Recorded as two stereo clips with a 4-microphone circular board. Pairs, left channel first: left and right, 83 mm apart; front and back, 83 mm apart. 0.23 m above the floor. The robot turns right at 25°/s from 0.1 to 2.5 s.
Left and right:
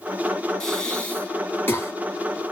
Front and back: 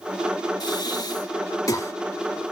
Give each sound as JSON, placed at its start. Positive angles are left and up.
{"t": 0.6, "sound": "breathing", "azimuth_deg": 10, "distance_m": 1.0}